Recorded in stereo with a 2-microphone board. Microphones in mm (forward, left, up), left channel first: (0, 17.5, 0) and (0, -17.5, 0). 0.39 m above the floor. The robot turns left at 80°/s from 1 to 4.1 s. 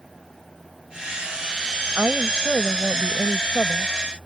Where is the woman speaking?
115° right; by 4.3 s 75° left.